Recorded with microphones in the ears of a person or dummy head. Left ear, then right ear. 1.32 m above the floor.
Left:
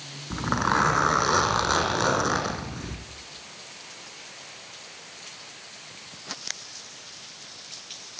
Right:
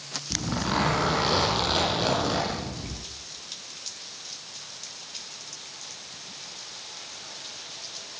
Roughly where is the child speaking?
I don't hear a child speaking.